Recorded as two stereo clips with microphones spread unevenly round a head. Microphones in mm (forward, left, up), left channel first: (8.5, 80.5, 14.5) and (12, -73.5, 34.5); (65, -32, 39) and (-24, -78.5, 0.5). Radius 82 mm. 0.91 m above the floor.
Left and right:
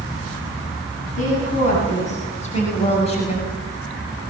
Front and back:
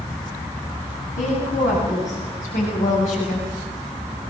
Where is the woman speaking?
50° left, 9 m; by 3.5 s 40° left, 6.5 m.